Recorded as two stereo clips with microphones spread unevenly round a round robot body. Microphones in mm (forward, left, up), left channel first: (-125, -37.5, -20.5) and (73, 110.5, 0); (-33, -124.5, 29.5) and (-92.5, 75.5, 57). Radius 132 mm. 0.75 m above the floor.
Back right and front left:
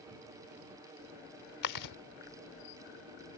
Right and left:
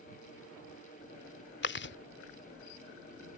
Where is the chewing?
115° right.